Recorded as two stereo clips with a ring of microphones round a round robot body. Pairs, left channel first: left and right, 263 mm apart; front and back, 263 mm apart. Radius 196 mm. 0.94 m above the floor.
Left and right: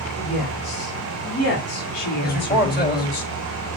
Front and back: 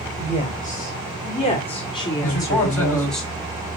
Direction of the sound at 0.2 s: 60° left.